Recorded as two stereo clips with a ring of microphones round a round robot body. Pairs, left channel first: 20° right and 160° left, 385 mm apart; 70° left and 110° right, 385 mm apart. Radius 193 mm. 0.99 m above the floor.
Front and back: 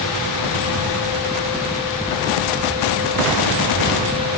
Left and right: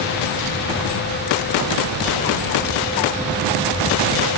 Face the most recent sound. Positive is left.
No sound to turn to.